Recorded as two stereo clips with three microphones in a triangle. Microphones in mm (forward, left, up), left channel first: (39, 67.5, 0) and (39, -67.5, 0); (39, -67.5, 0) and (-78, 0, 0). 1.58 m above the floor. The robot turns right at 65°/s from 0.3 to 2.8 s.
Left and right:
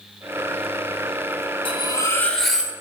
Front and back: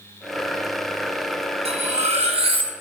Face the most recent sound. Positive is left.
turn(degrees=-160)